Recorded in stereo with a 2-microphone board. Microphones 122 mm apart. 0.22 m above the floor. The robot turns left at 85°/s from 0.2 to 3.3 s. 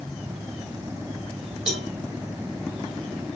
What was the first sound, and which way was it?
A cowbell, 5° right (ahead or behind).